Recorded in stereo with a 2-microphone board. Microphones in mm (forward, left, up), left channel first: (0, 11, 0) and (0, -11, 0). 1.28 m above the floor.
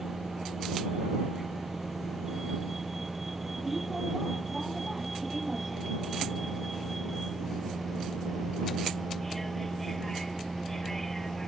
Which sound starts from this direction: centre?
A vehicle, at 0.0 s.